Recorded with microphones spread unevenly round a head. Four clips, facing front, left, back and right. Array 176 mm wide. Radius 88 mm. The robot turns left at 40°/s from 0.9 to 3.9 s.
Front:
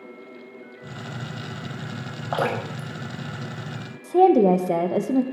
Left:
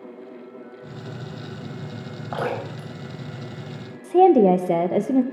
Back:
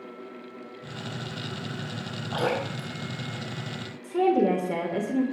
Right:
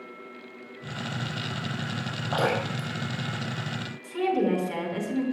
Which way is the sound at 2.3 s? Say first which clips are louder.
Right 1 dB, front 2 dB; 15° right.